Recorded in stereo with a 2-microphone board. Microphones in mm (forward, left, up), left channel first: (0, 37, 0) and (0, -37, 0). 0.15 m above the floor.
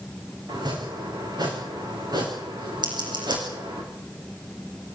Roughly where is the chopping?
Right.